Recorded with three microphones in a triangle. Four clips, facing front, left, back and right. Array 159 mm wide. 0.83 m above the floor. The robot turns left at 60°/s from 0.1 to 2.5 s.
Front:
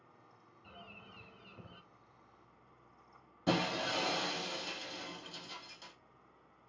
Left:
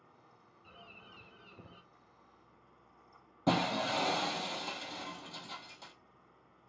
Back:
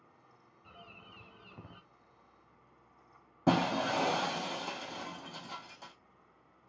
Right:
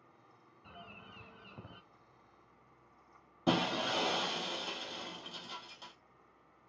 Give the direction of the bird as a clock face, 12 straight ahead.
2 o'clock.